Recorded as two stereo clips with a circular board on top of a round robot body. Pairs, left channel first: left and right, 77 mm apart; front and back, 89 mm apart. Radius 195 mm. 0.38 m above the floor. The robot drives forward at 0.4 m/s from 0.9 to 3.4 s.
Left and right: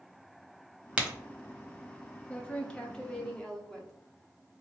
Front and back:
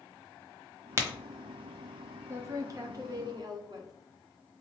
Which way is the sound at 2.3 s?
150° left.